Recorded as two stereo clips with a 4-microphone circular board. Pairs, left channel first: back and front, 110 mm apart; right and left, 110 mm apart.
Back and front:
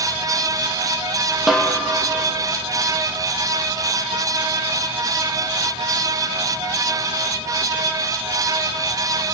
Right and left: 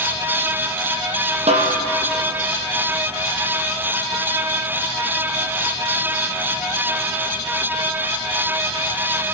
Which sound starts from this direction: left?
A snare drum, at 1.5 s.